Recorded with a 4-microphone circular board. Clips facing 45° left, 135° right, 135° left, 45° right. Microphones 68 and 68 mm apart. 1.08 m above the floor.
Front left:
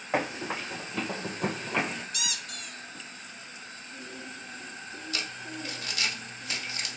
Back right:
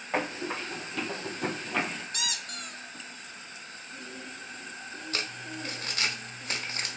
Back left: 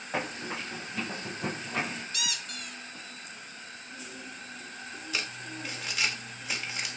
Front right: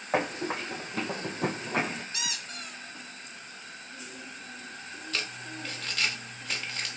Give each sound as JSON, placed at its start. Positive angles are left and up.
{"t": 0.1, "sound": "running footsteps", "azimuth_deg": -35, "distance_m": 3.0}
{"t": 2.1, "sound": "a squeak", "azimuth_deg": -105, "distance_m": 0.6}
{"t": 5.1, "sound": "crumpling", "azimuth_deg": -150, "distance_m": 0.9}